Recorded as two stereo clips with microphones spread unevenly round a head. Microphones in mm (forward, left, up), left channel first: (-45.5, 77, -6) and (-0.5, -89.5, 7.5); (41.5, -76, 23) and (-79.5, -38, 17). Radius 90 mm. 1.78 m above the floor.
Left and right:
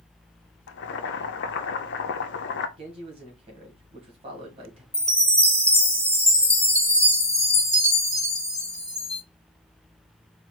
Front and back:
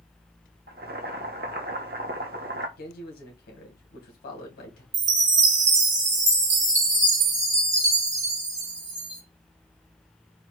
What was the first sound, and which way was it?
Boiling, 125° left.